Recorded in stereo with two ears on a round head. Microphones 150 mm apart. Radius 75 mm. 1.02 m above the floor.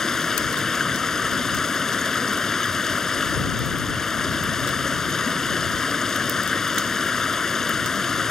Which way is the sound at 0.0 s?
5° left (ahead or behind).